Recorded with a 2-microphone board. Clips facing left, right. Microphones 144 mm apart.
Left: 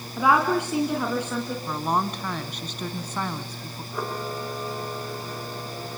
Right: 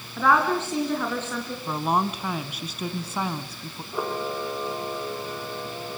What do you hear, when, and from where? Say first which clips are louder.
0.2 s a woman speaking: left 1 dB; 15° left (ahead or behind), 2 m
1.7 s a woman speaking: right 3 dB; 10° right (ahead or behind), 1.2 m
3.9 s a camera shutter: right 3 dB; 10° right (ahead or behind), 4.5 m